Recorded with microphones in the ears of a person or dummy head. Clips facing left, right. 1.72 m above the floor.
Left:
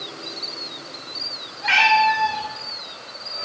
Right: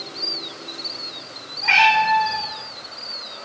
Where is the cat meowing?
10° left (ahead or behind), 2.5 m.